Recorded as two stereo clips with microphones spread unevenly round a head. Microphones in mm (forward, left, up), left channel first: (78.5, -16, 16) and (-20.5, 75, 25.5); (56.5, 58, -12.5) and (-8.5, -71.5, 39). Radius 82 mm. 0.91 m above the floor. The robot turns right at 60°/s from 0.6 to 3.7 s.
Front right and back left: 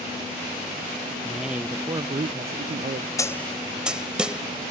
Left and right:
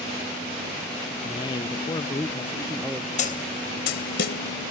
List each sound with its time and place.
1.2 s a man speaking: 35° left; by 3.1 s 150° left
3.2 s a snare drum: 25° left; by 4.4 s 55° left